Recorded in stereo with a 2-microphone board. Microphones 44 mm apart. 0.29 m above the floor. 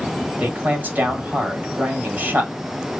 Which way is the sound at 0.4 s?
40° right (ahead or behind).